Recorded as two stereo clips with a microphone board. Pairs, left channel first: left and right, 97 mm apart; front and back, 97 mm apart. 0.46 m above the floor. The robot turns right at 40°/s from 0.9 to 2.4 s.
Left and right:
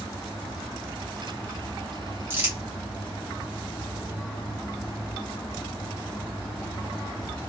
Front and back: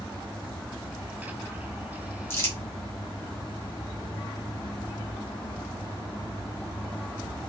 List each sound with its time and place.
2.3 s crumpling: 45° right, 1.5 m; by 2.5 s 40° right, 1.5 m